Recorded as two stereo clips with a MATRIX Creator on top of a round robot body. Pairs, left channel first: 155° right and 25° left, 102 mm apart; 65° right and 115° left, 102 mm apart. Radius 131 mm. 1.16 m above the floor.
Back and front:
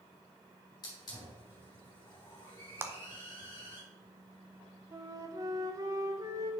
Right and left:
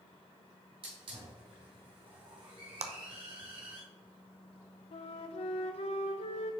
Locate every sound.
0.8 s a hiss: 150° left, 2.5 m
2.8 s a clap: 95° left, 0.7 m
4.9 s a flute: 35° right, 0.6 m